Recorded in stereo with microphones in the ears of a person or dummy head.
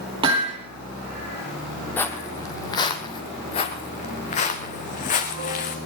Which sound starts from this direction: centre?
Footsteps, at 2.0 s.